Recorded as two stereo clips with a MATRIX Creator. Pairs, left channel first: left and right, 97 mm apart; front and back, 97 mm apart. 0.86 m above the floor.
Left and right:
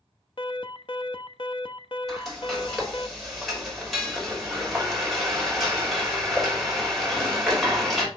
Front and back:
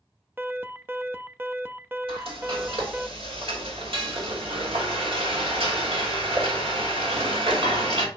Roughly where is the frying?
Behind.